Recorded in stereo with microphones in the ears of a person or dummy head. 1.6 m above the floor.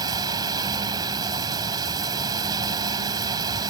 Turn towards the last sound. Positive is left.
turn(degrees=-25)  # may be behind; listen again after turning